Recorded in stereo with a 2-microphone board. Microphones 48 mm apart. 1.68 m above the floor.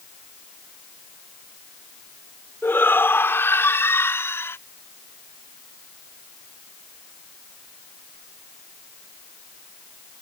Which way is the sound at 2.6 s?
55° left (ahead or behind).